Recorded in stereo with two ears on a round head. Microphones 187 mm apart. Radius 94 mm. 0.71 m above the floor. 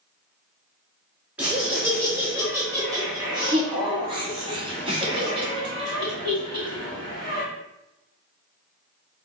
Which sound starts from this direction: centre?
Laughter, at 1.4 s.